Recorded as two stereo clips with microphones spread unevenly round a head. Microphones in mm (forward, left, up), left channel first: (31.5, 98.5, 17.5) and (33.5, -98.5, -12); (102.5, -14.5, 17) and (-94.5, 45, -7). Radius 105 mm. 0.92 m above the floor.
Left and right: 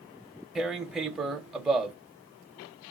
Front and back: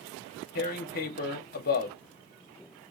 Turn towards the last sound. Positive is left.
turn(degrees=-15)